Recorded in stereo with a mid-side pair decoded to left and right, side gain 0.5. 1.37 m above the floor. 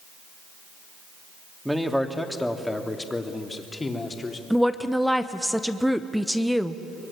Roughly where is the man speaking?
Ahead.